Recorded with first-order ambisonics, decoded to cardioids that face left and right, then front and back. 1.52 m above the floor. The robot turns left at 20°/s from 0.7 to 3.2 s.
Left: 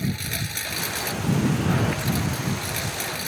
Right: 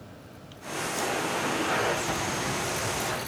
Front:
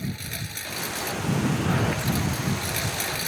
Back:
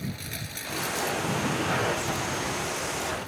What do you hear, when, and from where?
0.0 s a lawn mower: 80° left; by 3.3 s 30° left